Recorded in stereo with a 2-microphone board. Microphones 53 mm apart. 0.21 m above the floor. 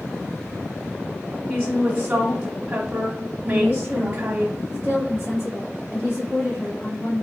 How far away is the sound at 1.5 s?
About 1.0 m.